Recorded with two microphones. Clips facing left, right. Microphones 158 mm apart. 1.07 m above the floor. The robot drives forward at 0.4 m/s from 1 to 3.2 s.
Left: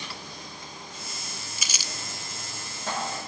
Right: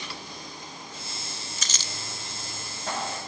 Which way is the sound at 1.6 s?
10° left (ahead or behind).